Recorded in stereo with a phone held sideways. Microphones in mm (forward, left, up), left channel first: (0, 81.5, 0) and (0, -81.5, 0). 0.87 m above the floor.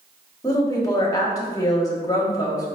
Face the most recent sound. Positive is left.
turn(degrees=20)  # may be behind; listen again after turning